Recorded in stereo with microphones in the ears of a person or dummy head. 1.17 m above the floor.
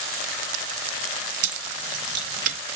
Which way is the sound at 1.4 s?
50° right (ahead or behind).